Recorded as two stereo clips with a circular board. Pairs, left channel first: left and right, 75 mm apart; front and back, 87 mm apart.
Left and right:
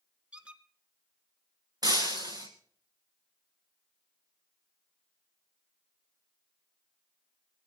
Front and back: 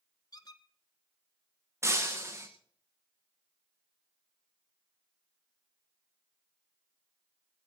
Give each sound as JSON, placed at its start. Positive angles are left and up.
{"t": 0.3, "sound": "a squeak", "azimuth_deg": -20, "distance_m": 0.8}
{"t": 1.8, "sound": "breaking glass", "azimuth_deg": -120, "distance_m": 1.9}